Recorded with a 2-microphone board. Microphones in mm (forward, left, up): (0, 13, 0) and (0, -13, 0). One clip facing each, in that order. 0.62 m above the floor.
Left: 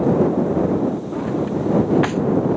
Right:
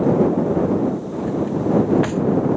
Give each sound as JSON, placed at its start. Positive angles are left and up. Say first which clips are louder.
{"t": 1.1, "sound": "a drawer", "louder": "even", "side_deg": 20}